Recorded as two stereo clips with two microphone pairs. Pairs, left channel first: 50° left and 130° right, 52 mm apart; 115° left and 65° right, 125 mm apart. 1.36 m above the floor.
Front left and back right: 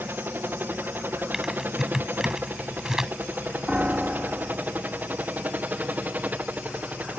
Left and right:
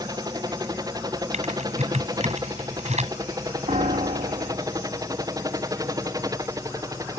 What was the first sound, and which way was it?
A helicopter, 105° right.